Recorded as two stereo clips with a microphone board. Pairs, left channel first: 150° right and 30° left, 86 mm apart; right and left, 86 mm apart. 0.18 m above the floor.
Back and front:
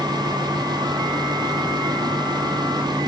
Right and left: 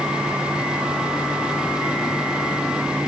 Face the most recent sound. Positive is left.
No sound to turn to.